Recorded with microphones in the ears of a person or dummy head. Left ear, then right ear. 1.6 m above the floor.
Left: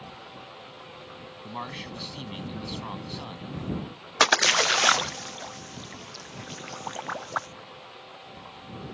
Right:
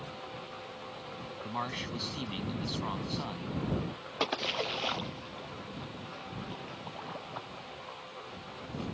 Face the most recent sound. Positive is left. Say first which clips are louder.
# left 12 dB
turn(degrees=60)  # may be behind; listen again after turning